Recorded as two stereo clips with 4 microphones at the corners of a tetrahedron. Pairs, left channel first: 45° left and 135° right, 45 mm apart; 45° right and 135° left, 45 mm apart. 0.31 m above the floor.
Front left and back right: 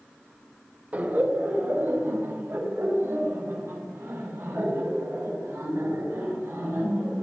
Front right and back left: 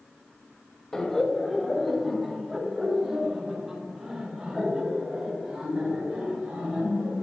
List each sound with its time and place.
0.9 s laughter: 115° right, 1.4 m; by 7.2 s 150° right, 6 m